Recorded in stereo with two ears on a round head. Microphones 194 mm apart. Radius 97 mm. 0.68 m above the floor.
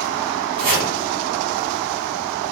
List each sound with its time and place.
0.6 s chopping: 50° right (ahead or behind), 2 m